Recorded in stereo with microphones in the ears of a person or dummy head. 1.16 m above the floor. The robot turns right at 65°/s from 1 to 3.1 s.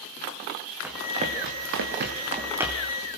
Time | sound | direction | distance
0.8 | running footsteps | 10° right (ahead or behind) | 2.5 m